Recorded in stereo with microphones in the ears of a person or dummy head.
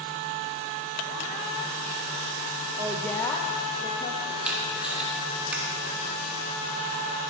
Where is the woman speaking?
25° right (ahead or behind), 0.6 m; by 4.3 s 45° left (ahead or behind), 2 m.